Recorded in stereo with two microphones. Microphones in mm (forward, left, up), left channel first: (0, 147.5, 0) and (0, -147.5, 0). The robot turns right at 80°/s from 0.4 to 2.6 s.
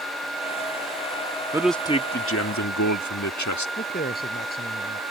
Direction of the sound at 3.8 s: 30° left (ahead or behind).